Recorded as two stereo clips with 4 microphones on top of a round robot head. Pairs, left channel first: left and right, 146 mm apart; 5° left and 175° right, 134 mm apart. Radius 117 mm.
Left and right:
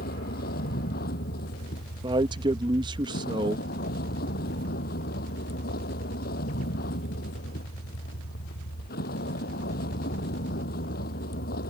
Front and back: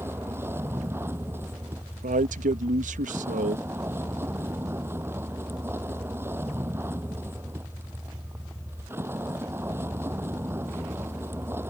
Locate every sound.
0.0 s a vehicle: 115° left
2.0 s a man speaking: 150° right